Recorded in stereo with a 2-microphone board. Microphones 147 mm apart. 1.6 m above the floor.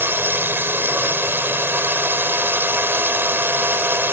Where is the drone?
15° right (ahead or behind).